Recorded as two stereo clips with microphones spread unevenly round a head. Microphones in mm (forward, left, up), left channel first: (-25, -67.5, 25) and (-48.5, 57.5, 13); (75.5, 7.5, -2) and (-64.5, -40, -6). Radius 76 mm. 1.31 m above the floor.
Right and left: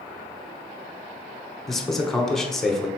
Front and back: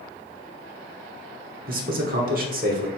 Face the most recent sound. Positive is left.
turn(degrees=-170)